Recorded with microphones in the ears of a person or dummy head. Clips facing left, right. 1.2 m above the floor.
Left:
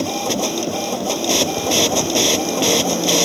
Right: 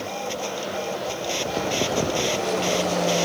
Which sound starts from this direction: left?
A machine running, at 0.0 s.